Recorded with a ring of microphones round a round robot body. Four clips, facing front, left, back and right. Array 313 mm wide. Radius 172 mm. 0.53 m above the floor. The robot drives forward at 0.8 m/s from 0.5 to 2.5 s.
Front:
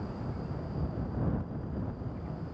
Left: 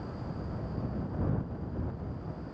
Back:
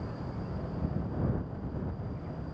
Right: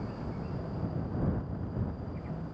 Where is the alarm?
No alarm in this recording.